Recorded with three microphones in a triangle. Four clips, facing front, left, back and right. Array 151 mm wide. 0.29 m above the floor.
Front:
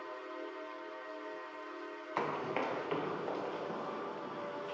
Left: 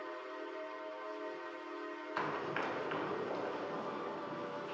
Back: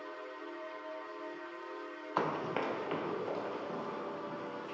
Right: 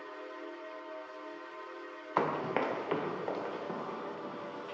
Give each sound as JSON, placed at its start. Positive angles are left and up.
{"t": 2.2, "sound": "running footsteps", "azimuth_deg": -105, "distance_m": 0.7}